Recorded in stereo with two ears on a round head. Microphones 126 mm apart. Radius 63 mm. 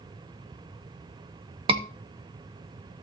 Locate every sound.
1.7 s a scream: 40° right (ahead or behind), 1.6 m